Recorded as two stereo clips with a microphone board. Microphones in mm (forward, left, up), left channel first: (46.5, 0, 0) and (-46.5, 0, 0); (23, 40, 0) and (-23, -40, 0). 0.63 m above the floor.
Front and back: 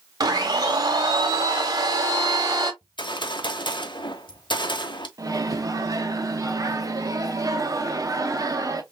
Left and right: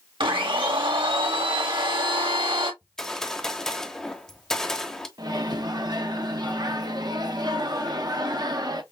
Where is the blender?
135° right, 1.1 m.